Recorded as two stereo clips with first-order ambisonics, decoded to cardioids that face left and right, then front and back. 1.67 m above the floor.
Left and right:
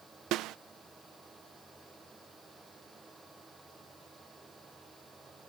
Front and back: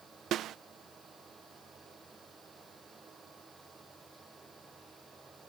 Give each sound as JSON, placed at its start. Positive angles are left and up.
{"t": 0.3, "sound": "a snare drum", "azimuth_deg": -130}